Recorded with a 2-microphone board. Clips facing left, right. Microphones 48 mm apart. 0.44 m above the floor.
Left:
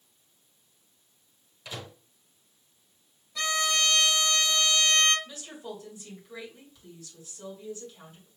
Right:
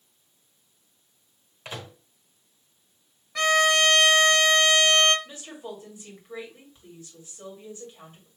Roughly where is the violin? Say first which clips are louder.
Right 8 dB; right.